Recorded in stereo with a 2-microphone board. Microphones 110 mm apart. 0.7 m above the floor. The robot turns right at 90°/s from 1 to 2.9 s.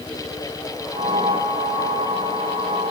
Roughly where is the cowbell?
I don't hear a cowbell.